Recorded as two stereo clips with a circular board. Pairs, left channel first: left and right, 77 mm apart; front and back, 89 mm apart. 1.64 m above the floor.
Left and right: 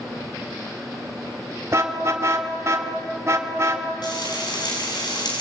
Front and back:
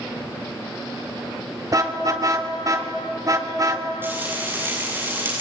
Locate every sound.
1.7 s a car horn: 135° right, 2 m
4.0 s frying: 115° left, 7.5 m